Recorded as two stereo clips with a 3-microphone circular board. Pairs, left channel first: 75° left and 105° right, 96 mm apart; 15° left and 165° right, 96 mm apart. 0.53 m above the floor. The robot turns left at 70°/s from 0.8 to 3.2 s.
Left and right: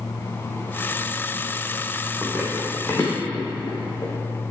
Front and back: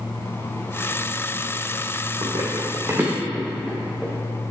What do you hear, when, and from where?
2.2 s running footsteps: 170° right, 1.9 m; by 4.1 s 100° left, 2.5 m